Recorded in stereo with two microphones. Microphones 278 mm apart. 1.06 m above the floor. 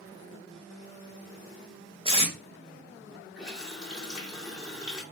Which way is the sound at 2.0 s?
20° right (ahead or behind).